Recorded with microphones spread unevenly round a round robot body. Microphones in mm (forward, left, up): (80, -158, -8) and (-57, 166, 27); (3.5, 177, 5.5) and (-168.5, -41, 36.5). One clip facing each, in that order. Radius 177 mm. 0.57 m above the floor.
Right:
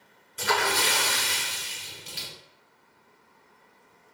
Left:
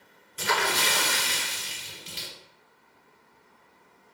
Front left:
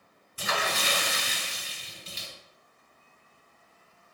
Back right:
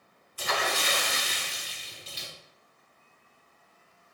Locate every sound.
0.4 s a splash: 25° left, 1.4 m